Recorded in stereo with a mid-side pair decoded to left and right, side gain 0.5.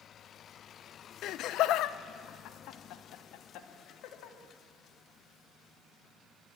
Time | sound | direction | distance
1.2 | laughter | 70° left | 0.6 m